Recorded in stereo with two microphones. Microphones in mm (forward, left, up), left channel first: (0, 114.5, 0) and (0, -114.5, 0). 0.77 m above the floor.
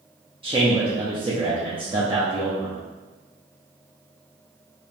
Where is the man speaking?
20° right (ahead or behind), 0.9 m.